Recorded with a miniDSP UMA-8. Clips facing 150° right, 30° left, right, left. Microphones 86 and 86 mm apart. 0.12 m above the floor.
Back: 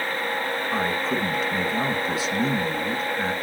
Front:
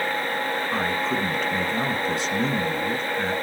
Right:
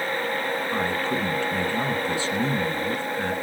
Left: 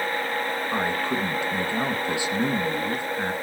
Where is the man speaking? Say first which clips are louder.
Back 1 dB, left 1 dB; 130° left, 1.6 m.